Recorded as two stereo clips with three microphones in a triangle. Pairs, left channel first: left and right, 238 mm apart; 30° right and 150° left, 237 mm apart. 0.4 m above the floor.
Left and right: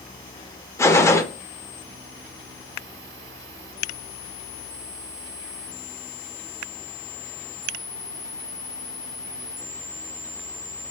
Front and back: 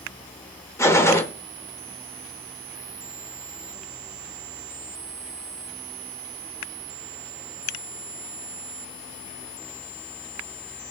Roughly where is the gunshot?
Ahead left.